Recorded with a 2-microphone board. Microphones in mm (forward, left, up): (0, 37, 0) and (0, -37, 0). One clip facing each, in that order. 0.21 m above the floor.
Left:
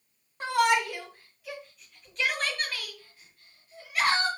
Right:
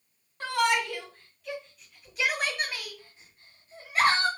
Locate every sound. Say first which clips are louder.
0.4 s a shout: left 2 dB; 15° left (ahead or behind), 2 m; by 4.3 s 30° right (ahead or behind), 2 m